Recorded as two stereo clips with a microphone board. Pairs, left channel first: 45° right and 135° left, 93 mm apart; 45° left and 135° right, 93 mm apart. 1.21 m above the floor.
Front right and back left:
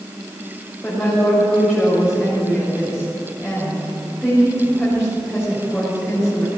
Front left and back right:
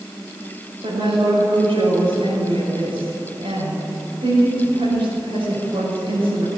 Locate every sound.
0.8 s a woman speaking: 135° right, 6 m